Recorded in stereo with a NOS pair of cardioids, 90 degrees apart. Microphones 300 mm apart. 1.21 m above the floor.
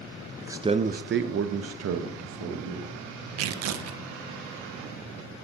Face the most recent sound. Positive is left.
turn(degrees=-60)